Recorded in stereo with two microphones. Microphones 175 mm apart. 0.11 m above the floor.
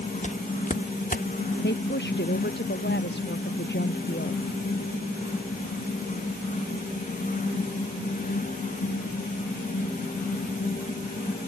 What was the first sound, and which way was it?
Footsteps, 40° left (ahead or behind).